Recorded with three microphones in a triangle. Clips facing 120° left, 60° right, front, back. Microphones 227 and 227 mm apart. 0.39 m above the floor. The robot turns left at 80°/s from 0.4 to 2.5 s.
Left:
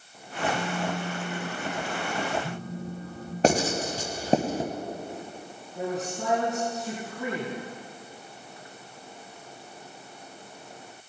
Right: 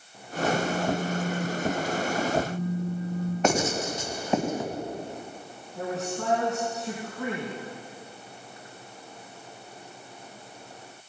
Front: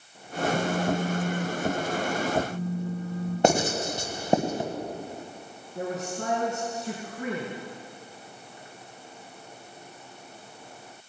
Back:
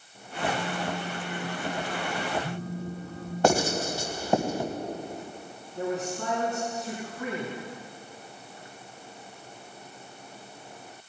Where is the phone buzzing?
45° right, 3 m; by 3.3 s 155° left, 3 m.